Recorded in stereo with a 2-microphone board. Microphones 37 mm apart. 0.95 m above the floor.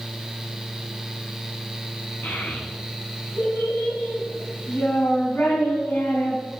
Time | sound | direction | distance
2.2 | a child speaking | 90° left | 7 m